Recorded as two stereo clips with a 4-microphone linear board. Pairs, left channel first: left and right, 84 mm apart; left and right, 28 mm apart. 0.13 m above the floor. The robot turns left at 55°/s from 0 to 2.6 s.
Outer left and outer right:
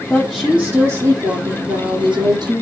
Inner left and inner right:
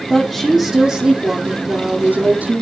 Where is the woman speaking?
10° left, 4.5 m; by 2.6 s 125° right, 4.5 m.